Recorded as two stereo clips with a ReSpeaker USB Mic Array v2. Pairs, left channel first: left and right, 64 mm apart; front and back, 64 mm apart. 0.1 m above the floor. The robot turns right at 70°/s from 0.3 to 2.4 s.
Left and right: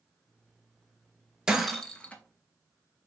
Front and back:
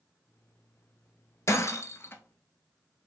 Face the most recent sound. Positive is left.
turn(degrees=50)